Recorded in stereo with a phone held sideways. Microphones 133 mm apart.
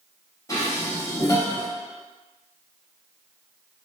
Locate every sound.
0.5 s dishes clattering: 25° left (ahead or behind), 1.1 m